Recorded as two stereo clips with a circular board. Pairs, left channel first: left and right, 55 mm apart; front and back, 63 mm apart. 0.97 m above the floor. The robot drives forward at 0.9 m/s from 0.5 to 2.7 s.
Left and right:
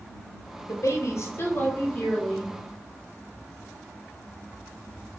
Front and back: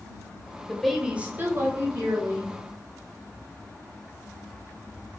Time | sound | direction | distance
0.7 | a woman speaking | 80° left | 0.9 m